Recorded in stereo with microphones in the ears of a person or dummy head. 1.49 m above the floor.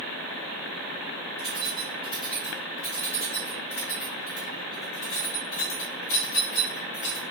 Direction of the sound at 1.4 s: 25° left (ahead or behind).